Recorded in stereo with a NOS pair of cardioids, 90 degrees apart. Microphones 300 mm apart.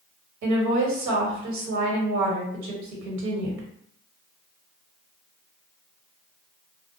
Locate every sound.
0.4 s a woman speaking: 70° right, 1.3 m